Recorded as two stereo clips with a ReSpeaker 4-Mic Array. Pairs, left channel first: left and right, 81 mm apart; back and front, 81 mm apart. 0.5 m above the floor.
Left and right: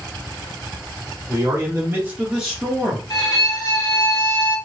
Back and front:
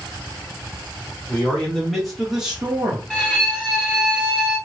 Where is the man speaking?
110° right, 1.3 m; by 3.0 s 25° left, 1.1 m.